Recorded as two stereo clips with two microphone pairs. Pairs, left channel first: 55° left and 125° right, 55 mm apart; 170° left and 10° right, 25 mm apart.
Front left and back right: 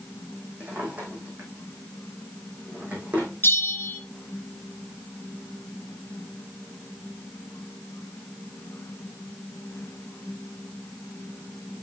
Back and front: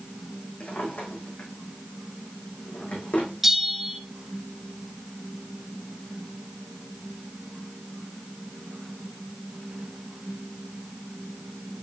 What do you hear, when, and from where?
0.6 s a drawer: 165° left, 3.5 m
3.4 s a bell: 70° left, 1.9 m